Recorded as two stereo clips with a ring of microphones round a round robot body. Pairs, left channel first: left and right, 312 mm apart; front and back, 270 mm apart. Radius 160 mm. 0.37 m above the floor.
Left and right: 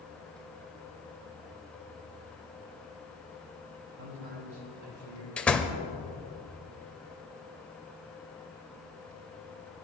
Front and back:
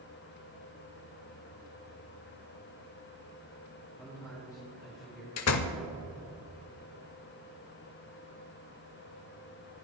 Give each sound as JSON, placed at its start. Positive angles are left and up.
{"t": 4.0, "sound": "a man speaking", "azimuth_deg": -80, "distance_m": 2.5}
{"t": 5.4, "sound": "a door slam", "azimuth_deg": 5, "distance_m": 0.8}